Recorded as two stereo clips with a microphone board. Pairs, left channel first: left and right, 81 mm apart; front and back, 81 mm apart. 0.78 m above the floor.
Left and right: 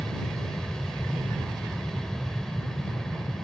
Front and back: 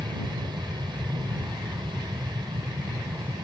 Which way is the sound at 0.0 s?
175° left.